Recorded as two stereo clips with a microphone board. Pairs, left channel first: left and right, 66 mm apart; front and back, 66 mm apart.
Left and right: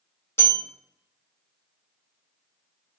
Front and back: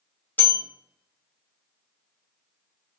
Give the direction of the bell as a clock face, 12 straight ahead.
10 o'clock.